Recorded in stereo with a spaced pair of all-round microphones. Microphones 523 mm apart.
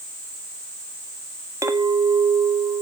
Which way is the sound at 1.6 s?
5° right (ahead or behind).